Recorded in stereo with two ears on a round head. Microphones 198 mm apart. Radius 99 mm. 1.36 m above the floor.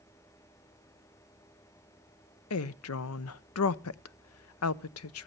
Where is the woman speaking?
75° left (ahead or behind), 0.6 m.